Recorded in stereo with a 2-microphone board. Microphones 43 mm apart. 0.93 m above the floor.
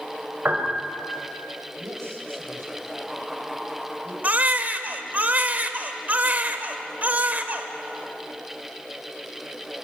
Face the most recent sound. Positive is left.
turn(degrees=-40)  # may be behind; listen again after turning